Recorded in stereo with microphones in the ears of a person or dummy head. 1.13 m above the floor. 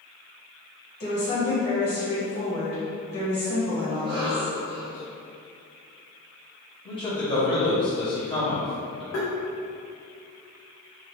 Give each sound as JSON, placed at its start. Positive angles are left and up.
{"t": 1.0, "sound": "a woman speaking", "side_deg": 45, "distance_m": 1.4}
{"t": 3.9, "sound": "a cough", "side_deg": -25, "distance_m": 0.6}
{"t": 6.8, "sound": "a man speaking", "side_deg": 20, "distance_m": 1.1}
{"t": 9.1, "sound": "tapping", "side_deg": 50, "distance_m": 0.8}